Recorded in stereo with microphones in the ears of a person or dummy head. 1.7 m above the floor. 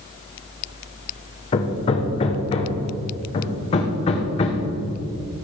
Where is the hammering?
35° left (ahead or behind), 1.2 m.